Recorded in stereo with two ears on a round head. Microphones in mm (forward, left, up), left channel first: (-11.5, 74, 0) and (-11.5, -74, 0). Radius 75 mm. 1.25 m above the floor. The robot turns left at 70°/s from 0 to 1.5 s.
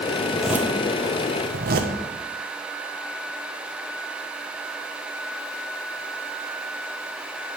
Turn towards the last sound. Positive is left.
turn(degrees=-60)  # may be behind; listen again after turning